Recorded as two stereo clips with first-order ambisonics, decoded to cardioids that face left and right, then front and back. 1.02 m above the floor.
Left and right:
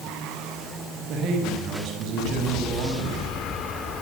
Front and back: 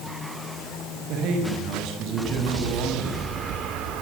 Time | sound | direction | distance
1.1 | a man speaking | 135° right | 7 m